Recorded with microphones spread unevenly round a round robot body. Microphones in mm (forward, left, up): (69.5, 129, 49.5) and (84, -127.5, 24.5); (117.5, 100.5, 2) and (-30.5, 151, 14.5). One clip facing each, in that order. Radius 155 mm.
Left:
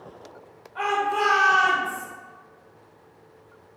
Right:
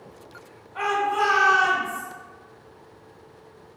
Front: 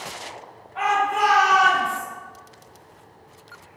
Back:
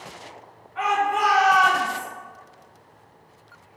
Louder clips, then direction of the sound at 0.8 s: Even, front 1 dB; 50° right.